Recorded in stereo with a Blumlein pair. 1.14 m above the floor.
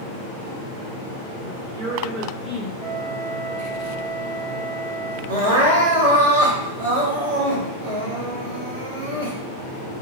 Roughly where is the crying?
Ahead right.